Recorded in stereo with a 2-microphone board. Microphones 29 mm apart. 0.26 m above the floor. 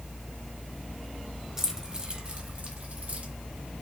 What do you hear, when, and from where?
1.6 s keys jangling: 20° right (ahead or behind), 1.2 m; by 3.3 s 55° right (ahead or behind), 2.0 m